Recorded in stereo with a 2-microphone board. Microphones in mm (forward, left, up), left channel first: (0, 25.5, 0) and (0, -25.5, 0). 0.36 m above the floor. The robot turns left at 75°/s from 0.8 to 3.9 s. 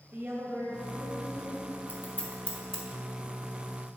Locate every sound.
0.1 s a woman speaking: 55° right, 2 m; by 1.7 s 125° right, 2 m
1.9 s scissors: 40° left (ahead or behind), 1.5 m; by 2.8 s 5° left (ahead or behind), 1.5 m